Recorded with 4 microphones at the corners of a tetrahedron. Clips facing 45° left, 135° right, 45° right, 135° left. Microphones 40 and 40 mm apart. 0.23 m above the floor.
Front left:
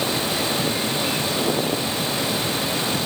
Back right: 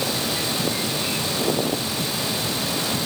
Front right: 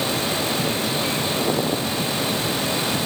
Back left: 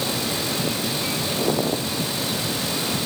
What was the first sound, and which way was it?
Only background noise.